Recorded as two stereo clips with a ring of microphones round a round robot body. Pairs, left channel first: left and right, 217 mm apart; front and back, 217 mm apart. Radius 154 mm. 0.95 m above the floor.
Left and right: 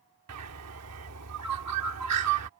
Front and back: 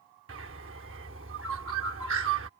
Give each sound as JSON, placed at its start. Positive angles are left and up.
{"t": 0.3, "sound": "a bird", "azimuth_deg": -125}